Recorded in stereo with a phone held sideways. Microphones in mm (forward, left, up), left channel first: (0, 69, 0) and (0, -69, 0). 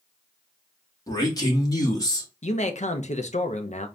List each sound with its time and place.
1.1 s a man speaking: 25° left (ahead or behind), 1.6 m
2.4 s a man speaking: 55° left (ahead or behind), 0.7 m